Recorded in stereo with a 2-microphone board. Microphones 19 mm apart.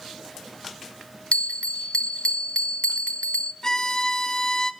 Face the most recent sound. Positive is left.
turn(degrees=25)  # may be behind; listen again after turning